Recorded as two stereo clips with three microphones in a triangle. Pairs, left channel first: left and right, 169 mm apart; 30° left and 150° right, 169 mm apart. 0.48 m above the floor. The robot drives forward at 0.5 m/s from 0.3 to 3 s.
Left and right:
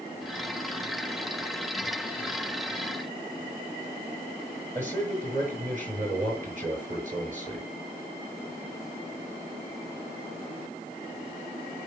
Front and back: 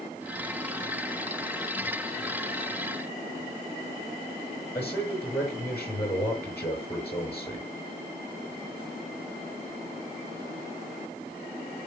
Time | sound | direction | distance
4.8 | a man speaking | 50° right | 6.5 m